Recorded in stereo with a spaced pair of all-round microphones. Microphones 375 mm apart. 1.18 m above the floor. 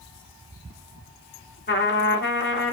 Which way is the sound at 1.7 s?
30° left (ahead or behind).